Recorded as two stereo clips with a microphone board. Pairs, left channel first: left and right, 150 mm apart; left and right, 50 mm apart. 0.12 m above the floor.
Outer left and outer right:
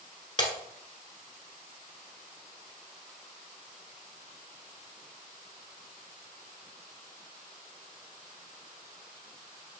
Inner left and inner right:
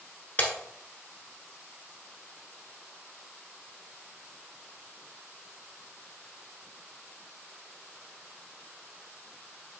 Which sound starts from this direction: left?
Breaking glass, at 0.4 s.